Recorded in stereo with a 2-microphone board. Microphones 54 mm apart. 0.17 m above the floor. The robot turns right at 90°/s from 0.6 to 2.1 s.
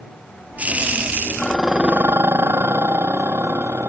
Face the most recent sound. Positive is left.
turn(degrees=-135)